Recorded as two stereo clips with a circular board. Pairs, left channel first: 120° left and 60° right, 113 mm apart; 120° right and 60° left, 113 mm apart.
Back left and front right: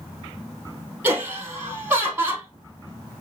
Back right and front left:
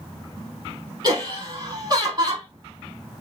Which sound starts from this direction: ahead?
Laughter, at 1.0 s.